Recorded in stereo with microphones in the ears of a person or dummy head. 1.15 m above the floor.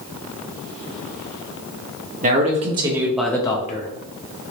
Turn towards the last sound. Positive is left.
turn(degrees=45)  # may be behind; listen again after turning